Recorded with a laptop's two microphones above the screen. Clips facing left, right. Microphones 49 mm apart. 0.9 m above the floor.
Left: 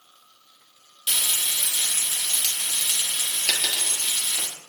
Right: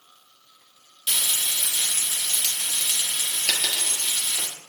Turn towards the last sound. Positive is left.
turn(degrees=0)  # may be behind; listen again after turning